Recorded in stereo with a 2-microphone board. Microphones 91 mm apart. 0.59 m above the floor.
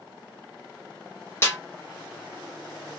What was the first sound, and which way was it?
A snare drum, 30° left (ahead or behind).